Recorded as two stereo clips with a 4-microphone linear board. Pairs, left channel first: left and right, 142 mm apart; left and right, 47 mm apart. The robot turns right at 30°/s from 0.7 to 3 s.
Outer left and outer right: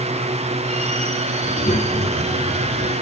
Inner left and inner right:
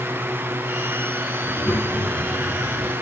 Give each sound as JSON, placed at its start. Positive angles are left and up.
{"t": 1.4, "sound": "a child speaking", "azimuth_deg": 50, "distance_m": 6.5}